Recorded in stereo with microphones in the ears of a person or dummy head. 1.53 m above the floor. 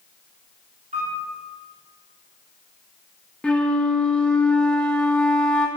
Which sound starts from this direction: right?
A piano, at 0.9 s.